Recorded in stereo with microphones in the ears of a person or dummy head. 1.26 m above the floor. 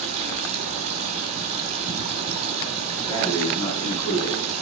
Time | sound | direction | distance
0.0 | running water | 40° right (ahead or behind) | 4.5 m
3.1 | breathing | 15° left (ahead or behind) | 7.5 m